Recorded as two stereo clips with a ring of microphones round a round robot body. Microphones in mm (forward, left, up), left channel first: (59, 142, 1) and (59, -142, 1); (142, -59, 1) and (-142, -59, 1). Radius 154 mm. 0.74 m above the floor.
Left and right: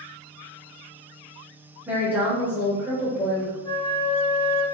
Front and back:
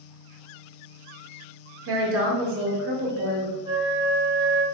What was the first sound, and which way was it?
A woman speaking, 175° right.